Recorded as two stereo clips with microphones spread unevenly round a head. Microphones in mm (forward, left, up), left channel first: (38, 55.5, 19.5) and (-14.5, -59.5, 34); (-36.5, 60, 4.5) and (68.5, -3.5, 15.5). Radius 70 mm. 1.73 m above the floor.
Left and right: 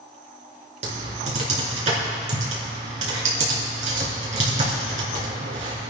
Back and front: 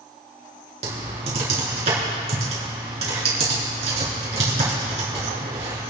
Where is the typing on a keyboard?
80° right, 3.5 m.